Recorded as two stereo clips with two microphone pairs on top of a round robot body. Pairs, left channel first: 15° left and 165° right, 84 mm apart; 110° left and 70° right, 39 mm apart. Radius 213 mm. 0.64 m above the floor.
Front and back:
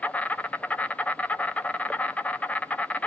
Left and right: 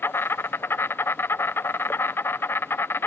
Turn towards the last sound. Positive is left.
turn(degrees=90)